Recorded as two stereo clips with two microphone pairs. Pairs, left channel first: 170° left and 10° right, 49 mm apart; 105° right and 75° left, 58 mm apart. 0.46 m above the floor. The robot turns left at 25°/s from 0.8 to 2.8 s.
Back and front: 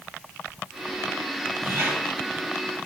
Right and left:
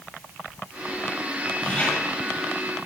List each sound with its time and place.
1.6 s a squeak: 35° right, 4.5 m; by 1.9 s 45° right, 4.5 m